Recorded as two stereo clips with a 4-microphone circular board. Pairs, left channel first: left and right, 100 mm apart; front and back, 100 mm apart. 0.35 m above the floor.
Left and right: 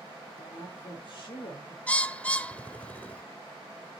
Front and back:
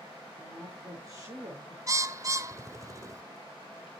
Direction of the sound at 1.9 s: 155° left.